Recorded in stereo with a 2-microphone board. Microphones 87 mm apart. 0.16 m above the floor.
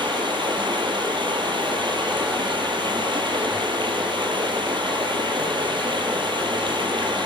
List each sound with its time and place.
0.0 s running water: 65° right (ahead or behind), 3 m